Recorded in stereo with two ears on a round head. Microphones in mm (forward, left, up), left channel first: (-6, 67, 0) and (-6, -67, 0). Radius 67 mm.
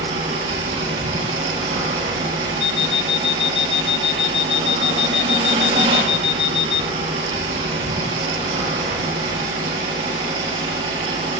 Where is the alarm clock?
35° left (ahead or behind), 0.6 m.